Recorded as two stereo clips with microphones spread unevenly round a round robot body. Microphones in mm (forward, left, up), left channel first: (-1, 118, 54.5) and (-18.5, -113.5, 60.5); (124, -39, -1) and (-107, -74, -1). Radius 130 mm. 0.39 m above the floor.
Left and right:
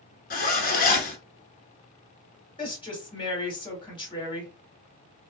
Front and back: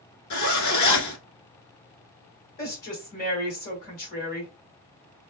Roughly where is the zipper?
Ahead left.